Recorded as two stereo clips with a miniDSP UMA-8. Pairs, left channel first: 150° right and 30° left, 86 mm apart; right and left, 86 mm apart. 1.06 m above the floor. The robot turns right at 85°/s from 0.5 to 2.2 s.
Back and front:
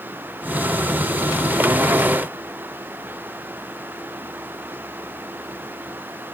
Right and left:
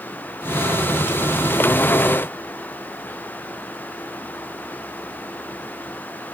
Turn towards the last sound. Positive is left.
No sound to turn to.